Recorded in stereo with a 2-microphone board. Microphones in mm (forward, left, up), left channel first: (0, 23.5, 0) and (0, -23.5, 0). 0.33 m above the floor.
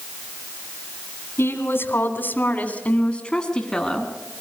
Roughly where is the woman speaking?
Left.